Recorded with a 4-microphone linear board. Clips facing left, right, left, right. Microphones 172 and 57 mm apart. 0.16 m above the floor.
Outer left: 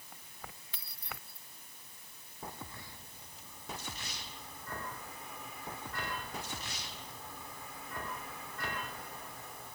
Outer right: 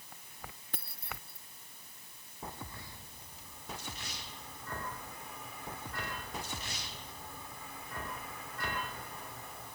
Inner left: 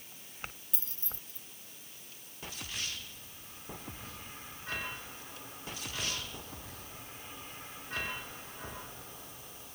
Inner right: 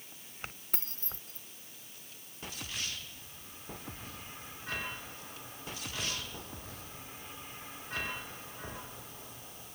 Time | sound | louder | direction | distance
0.7 | keys jangling | outer right 3 dB, inner right 4 dB | 50° right (ahead or behind) | ?